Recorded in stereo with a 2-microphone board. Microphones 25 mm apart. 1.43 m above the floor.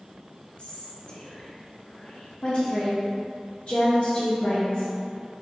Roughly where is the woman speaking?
Left.